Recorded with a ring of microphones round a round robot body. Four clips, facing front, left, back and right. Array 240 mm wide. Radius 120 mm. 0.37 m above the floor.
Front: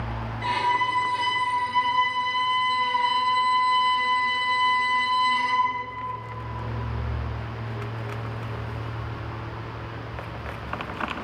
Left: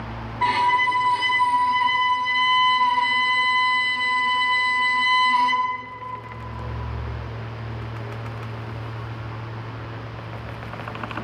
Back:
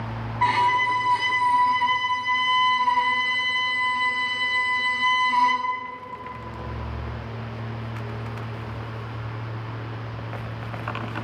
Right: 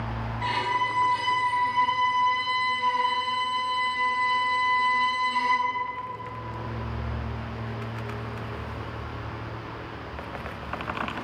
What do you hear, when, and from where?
0.4 s a violin: 145° left, 1.7 m